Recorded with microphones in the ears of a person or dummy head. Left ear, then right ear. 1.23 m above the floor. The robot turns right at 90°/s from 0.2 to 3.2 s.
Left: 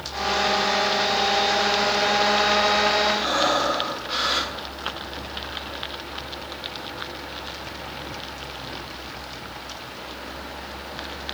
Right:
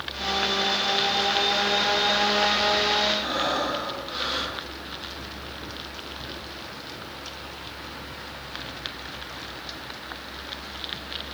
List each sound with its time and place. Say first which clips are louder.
3.2 s breathing: left 4 dB; 20° left (ahead or behind), 2.5 m; by 4.5 s 25° left (ahead or behind), 2.5 m